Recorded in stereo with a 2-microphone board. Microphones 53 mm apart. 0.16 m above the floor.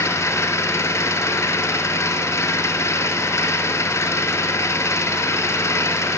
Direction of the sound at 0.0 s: 65° left (ahead or behind).